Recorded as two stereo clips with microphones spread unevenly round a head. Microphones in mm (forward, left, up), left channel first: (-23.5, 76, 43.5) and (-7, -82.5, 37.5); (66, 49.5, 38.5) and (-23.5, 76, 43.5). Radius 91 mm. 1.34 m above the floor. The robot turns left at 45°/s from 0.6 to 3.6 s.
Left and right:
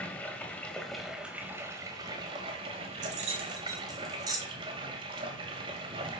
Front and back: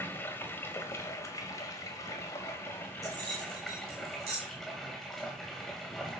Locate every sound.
0.0 s running water: 25° left, 1.2 m; by 6.2 s 110° right, 1.2 m
3.0 s keys jangling: 125° right, 2 m; by 4.4 s 150° right, 2 m